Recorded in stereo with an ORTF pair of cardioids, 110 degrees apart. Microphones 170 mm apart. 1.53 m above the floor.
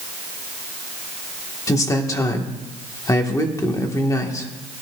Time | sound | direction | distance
1.7 | a man speaking | 20° left | 1.6 m